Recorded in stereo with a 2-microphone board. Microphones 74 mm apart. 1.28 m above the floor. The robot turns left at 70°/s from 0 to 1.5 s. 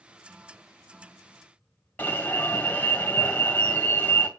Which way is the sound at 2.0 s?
20° left (ahead or behind).